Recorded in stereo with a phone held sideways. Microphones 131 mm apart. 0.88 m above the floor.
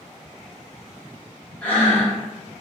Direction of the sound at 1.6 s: 15° left (ahead or behind).